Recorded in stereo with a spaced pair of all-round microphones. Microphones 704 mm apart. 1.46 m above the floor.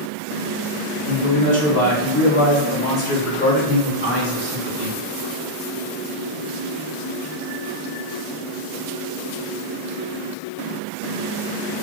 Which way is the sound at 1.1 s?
Centre (ahead or behind).